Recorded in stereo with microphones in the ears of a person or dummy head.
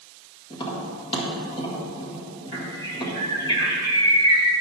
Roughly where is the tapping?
Left.